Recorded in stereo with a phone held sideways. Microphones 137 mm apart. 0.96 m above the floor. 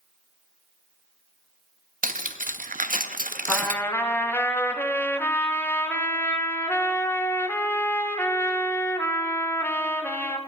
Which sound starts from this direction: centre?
A trumpet, at 3.5 s.